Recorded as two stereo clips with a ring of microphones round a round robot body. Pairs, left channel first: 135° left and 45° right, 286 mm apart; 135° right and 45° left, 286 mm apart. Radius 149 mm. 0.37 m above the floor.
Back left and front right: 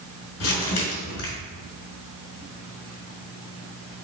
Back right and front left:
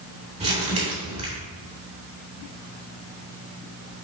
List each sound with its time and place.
0.4 s crumpling: 110° left, 2.5 m